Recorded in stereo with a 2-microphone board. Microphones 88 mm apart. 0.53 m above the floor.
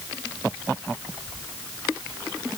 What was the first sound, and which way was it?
Only background noise.